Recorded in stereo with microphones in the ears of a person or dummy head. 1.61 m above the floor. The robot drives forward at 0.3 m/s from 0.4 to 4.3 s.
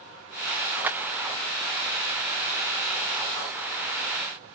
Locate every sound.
0.8 s a clap: 20° right (ahead or behind), 2 m